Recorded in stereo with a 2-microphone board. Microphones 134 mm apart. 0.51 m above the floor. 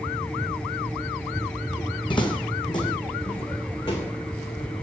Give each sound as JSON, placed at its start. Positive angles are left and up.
{"t": 2.1, "sound": "footsteps", "side_deg": 40, "distance_m": 1.3}